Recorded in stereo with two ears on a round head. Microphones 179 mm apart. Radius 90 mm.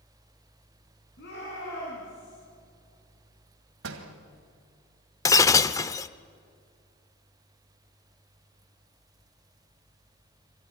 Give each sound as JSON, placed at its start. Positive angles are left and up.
{"t": 1.2, "sound": "a shout", "side_deg": 60, "distance_m": 6.5}
{"t": 3.8, "sound": "a door slam", "side_deg": -75, "distance_m": 2.5}
{"t": 5.2, "sound": "breaking glass", "side_deg": 15, "distance_m": 0.6}